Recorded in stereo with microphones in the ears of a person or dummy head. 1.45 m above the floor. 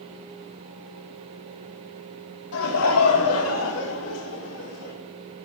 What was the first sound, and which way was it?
Laughter, 85° left.